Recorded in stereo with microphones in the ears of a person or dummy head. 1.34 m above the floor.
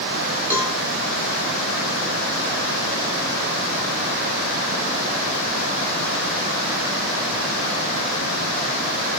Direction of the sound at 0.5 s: 10° right (ahead or behind).